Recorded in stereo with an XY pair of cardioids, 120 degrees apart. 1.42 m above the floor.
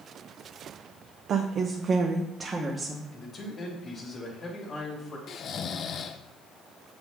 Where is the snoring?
50° left, 0.7 m.